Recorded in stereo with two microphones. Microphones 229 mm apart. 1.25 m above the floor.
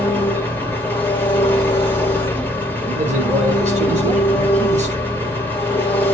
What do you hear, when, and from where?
0.0 s an engine running: 10° left (ahead or behind), 2.5 m
2.9 s a man speaking: 30° right (ahead or behind), 6 m